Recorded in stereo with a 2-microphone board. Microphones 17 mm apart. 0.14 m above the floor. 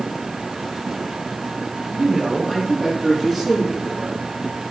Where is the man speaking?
20° right (ahead or behind), 3 m; by 4.2 s 25° right (ahead or behind), 4.5 m.